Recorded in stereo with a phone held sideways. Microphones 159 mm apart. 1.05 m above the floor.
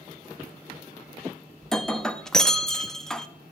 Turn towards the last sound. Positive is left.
turn(degrees=5)  # may be behind; listen again after turning